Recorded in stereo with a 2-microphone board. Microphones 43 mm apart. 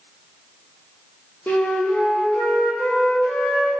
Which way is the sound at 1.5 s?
50° left (ahead or behind).